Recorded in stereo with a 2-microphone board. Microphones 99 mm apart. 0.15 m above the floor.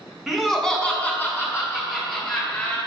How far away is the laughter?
About 1.1 m.